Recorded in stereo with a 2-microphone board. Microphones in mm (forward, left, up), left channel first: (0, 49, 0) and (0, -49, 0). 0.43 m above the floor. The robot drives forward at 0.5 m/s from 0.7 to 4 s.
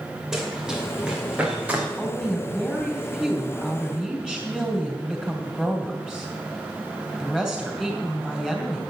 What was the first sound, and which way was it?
Running footsteps, 5° right (ahead or behind).